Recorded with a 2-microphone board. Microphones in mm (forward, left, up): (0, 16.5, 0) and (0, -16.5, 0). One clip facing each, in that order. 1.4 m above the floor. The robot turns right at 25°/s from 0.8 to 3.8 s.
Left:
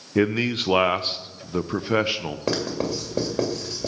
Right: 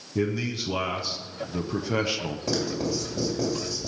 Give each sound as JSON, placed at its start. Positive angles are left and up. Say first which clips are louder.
{"t": 0.1, "sound": "a man speaking", "louder": "left 6 dB", "azimuth_deg": 125, "distance_m": 0.5}
{"t": 2.5, "sound": "writing", "louder": "left 2 dB", "side_deg": 55, "distance_m": 2.0}